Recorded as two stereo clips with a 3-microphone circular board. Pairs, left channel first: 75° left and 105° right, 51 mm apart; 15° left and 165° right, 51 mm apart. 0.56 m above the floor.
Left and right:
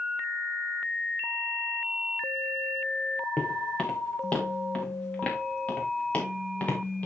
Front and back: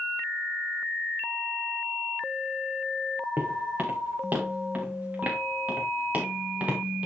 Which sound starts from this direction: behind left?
Footsteps, at 3.4 s.